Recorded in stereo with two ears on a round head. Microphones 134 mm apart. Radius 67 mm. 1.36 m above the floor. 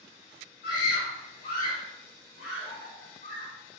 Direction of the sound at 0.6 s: 85° left.